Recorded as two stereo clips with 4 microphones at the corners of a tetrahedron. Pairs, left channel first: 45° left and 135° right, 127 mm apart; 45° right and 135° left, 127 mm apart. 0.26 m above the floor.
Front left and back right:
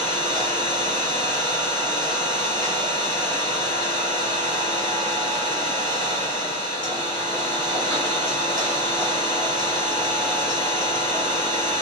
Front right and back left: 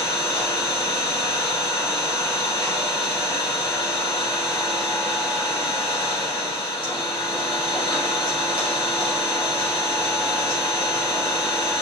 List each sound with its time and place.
0.0 s an engine running: 5° right, 1.4 m